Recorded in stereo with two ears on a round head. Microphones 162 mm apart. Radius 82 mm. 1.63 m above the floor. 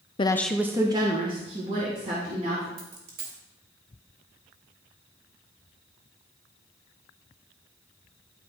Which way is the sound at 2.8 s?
65° right (ahead or behind).